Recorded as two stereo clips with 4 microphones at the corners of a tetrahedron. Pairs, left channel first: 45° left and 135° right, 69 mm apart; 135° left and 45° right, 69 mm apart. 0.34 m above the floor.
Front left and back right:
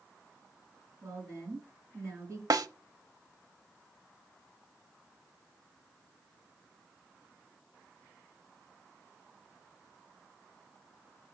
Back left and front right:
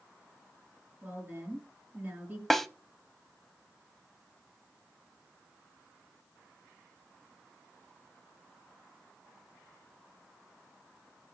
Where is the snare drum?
140° right, 0.6 m.